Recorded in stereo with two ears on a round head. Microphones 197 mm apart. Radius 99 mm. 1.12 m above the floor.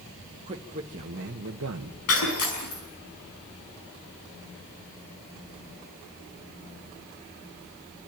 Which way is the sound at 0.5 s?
25° right (ahead or behind).